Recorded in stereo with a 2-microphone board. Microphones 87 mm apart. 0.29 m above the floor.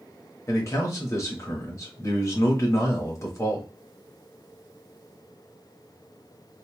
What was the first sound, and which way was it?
A man speaking, 35° left (ahead or behind).